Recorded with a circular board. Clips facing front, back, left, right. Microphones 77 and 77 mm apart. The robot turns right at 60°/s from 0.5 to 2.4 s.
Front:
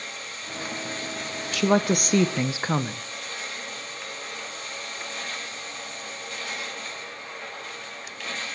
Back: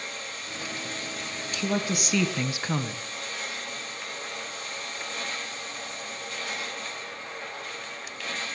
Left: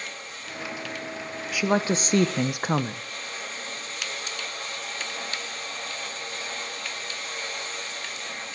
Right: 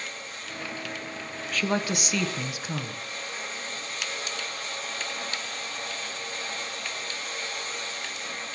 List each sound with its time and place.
1.5 s a woman speaking: 10° left, 1.3 m; by 3.0 s 60° left, 1.3 m